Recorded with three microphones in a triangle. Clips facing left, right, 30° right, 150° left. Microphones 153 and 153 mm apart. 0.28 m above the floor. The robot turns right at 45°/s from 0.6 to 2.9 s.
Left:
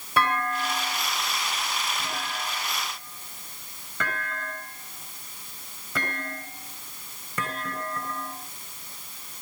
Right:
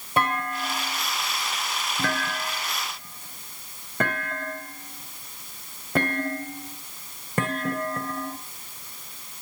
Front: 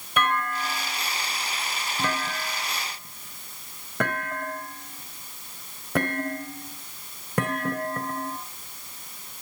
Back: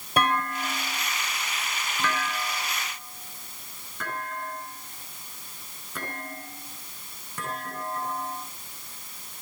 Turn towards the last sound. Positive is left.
turn(degrees=-55)